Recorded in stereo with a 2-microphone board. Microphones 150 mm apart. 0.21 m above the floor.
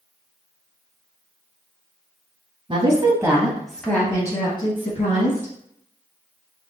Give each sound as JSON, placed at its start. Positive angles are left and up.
{"t": 2.7, "sound": "a woman speaking", "side_deg": -35, "distance_m": 1.2}